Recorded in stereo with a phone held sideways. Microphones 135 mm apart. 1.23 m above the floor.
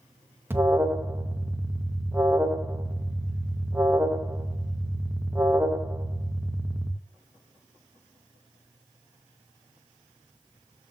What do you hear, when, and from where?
0.5 s an alarm: 15° right (ahead or behind), 1.6 m